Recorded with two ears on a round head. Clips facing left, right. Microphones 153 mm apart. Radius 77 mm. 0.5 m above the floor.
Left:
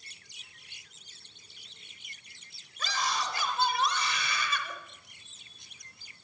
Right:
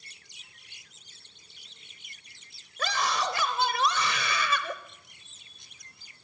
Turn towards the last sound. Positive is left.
turn(degrees=-60)  # may be behind; listen again after turning